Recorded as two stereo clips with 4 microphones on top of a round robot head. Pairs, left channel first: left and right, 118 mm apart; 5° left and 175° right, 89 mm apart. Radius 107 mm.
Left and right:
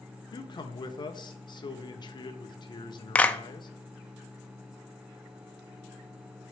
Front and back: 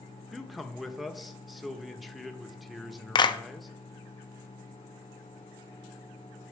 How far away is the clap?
About 1.0 m.